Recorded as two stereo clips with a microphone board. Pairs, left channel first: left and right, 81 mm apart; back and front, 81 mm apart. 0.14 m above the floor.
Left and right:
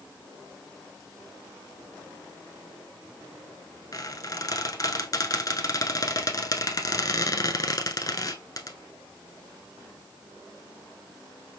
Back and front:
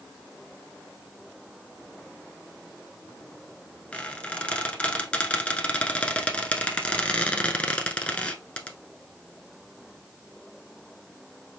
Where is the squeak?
110° left, 0.8 m.